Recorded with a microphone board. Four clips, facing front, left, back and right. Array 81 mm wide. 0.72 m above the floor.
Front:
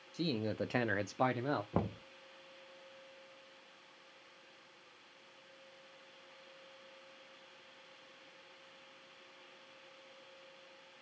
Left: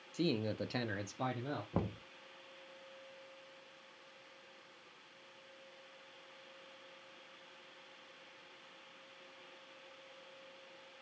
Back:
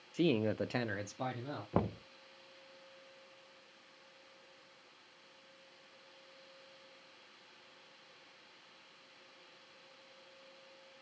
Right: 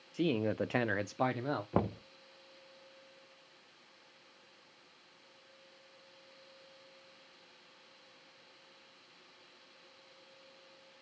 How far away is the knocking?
About 0.7 m.